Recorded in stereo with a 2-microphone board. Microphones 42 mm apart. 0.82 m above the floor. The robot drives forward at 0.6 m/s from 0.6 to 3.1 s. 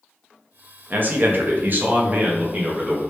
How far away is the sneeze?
No sneeze in this recording.